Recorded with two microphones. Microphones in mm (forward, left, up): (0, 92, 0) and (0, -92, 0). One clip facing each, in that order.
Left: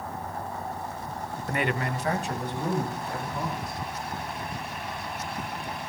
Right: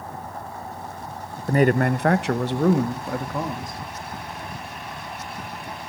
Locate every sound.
1.5 s a man speaking: 30° right (ahead or behind), 0.7 m; by 3.8 s 80° right, 3 m